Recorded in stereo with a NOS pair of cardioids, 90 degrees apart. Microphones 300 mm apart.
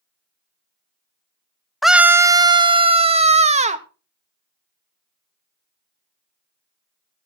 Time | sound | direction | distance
1.8 | a scream | straight ahead | 0.7 m